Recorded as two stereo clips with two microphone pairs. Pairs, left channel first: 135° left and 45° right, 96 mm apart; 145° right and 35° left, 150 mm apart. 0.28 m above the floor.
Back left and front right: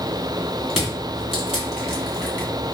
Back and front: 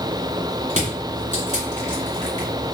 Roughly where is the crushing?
Ahead left.